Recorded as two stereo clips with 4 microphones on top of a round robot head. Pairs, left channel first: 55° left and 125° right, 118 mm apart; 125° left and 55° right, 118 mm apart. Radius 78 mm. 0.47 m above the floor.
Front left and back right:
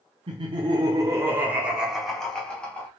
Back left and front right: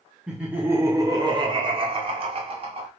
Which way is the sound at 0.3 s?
135° right.